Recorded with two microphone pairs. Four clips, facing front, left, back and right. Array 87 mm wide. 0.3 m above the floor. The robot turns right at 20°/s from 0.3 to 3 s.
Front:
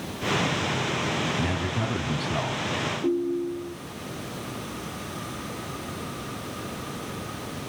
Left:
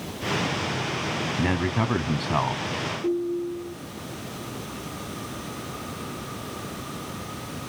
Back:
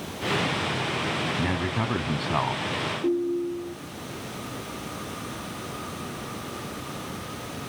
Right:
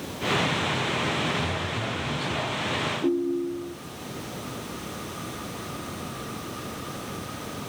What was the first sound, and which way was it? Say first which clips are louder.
A man speaking: left 5 dB, back 1 dB; 105° left.